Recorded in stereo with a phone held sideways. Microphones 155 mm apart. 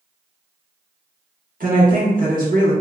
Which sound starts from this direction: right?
A woman speaking, at 1.6 s.